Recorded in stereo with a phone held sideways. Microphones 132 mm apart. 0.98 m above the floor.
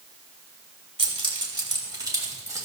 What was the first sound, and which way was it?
Keys jangling, 45° right (ahead or behind).